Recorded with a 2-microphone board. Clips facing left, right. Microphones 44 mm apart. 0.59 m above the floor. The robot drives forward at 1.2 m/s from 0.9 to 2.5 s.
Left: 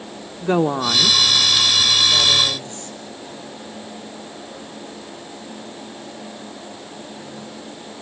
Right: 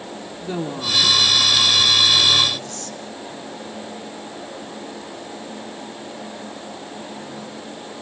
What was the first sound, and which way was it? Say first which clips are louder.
A woman speaking: left 9 dB; 60° left (ahead or behind).